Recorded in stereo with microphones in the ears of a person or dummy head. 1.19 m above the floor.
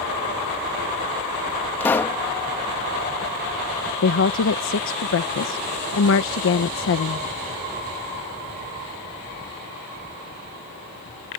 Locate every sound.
1.8 s a pop: 10° left (ahead or behind)
4.0 s a woman speaking: 65° left (ahead or behind)